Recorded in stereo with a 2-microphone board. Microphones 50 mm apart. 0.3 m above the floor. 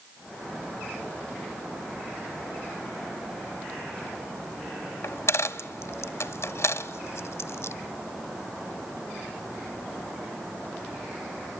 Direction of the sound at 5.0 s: 65° left (ahead or behind).